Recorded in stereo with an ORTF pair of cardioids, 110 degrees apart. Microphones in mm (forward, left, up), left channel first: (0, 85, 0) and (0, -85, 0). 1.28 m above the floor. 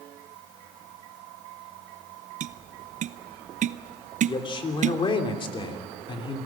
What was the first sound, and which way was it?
Tapping, 45° right.